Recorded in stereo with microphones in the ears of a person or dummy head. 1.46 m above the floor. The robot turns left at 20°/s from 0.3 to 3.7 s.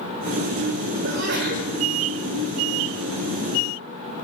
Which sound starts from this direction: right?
A sneeze, at 1.0 s.